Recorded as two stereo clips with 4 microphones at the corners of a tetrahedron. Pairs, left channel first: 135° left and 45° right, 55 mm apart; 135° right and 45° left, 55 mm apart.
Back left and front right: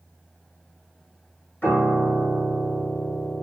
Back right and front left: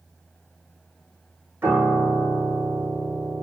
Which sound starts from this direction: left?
A piano, at 1.6 s.